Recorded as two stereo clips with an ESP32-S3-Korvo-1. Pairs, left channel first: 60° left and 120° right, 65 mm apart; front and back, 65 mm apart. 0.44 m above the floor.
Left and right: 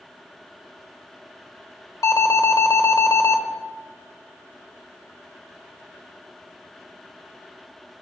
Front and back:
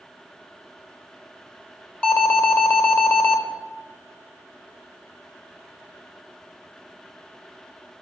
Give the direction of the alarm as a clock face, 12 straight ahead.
10 o'clock.